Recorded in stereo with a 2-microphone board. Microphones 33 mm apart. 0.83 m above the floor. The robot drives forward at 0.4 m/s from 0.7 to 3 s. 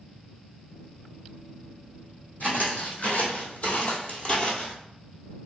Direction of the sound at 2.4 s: 60° left (ahead or behind).